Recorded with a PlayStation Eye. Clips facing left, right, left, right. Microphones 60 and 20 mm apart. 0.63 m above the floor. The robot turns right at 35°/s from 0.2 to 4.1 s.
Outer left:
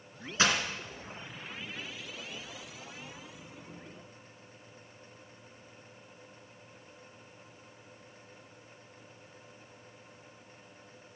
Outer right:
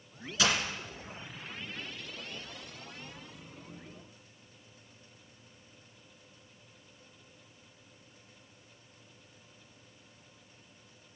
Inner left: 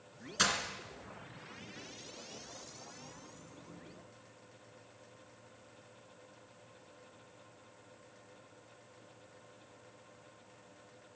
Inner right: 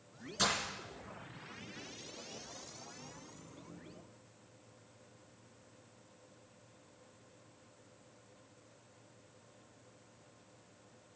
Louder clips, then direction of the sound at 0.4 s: Outer left 2 dB, inner left 2 dB; 30° left (ahead or behind).